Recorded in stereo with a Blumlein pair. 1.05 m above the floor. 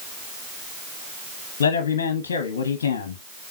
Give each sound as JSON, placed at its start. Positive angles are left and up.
{"t": 1.6, "sound": "a man speaking", "azimuth_deg": 60, "distance_m": 0.9}